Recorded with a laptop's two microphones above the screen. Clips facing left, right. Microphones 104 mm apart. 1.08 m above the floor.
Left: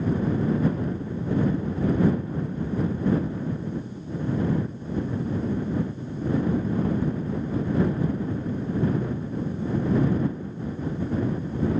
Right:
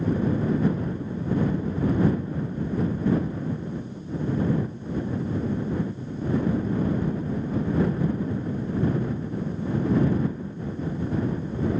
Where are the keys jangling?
No keys jangling in this recording.